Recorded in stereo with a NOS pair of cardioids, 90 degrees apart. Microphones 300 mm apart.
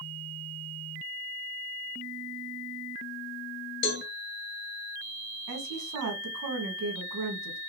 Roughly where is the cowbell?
Ahead left.